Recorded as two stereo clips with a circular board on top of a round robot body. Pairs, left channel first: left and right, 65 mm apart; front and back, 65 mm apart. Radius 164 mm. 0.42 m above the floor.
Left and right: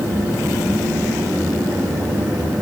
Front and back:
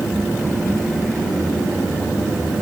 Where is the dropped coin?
I don't hear a dropped coin.